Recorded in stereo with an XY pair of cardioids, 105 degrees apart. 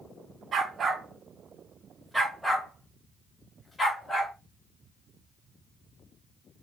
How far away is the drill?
No drill in this recording.